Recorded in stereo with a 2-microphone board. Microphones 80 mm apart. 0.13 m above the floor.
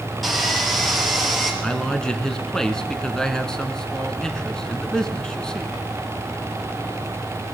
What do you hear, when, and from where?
0.2 s sawing: centre (ahead or behind), 3 m
1.6 s a man speaking: 10° left (ahead or behind), 1.1 m